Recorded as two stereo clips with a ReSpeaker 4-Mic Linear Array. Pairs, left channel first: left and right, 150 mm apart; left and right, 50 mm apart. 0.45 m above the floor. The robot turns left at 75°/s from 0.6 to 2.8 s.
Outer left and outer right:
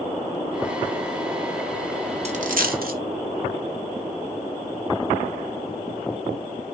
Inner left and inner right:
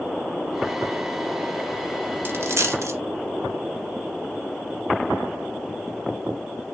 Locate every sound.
2.2 s a dropped coin: 50° right (ahead or behind), 0.8 m; by 3.0 s 90° right, 0.8 m